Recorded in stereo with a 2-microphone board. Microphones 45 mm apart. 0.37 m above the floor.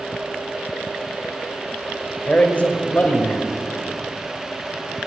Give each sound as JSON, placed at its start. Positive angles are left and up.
{"t": 2.3, "sound": "a man speaking", "side_deg": 30, "distance_m": 1.3}